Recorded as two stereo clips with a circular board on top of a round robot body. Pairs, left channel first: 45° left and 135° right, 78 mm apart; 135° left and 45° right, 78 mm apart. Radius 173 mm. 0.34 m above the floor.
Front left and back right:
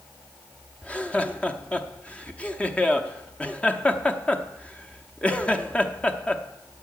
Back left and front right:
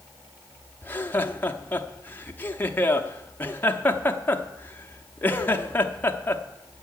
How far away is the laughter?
About 1.0 m.